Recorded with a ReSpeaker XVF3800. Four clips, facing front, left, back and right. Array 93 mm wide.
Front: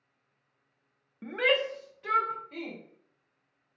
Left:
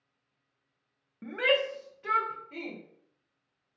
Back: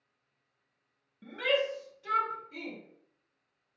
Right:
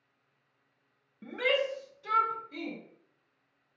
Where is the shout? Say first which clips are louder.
Left 2 dB, front 3 dB; 30° left, 0.6 m; by 2.8 s 50° left, 1.4 m.